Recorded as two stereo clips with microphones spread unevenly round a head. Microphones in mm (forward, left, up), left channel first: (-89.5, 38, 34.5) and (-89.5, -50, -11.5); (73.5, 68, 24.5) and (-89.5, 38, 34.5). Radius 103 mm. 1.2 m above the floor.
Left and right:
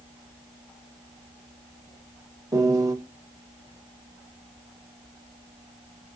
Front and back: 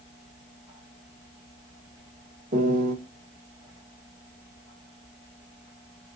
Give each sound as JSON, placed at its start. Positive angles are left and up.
{"t": 2.5, "sound": "a piano", "azimuth_deg": -125, "distance_m": 1.4}